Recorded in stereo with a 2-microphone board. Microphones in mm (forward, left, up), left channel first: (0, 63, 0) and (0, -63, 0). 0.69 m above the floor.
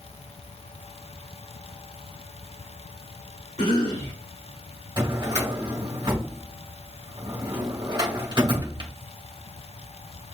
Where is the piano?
I don't hear a piano.